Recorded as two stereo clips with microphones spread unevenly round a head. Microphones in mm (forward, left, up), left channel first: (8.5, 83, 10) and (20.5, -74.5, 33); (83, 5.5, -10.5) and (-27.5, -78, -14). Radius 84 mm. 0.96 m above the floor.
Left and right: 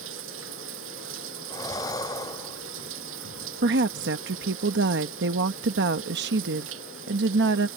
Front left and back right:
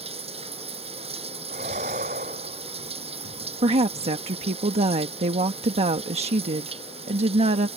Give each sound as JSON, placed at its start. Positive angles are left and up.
{"t": 0.0, "sound": "running water", "azimuth_deg": -95}
{"t": 1.5, "sound": "breathing", "azimuth_deg": 165}
{"t": 3.6, "sound": "a woman speaking", "azimuth_deg": -100}